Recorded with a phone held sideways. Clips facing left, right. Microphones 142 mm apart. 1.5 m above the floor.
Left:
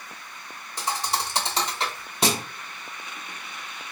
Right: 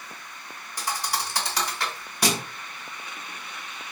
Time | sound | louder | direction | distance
0.8 | a thud | left 2 dB | 25° left (ahead or behind) | 0.8 m